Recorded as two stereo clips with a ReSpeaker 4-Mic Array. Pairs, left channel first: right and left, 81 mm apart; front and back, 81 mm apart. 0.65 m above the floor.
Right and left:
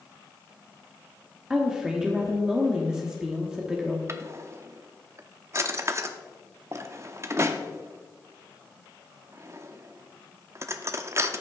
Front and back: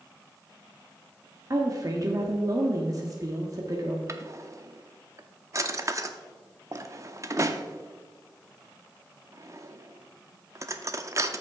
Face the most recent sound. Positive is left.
turn(degrees=135)